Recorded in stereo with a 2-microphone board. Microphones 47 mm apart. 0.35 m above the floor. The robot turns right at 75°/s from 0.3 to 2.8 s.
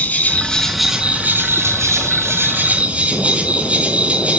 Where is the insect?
145° left, 0.9 m; by 4.4 s 30° right, 0.9 m.